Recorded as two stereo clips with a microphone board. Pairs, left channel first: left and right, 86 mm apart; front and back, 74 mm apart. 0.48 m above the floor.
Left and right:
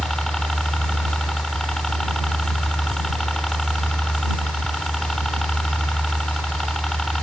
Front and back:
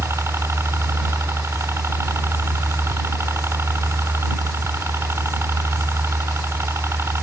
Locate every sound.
0.0 s a helicopter: 175° left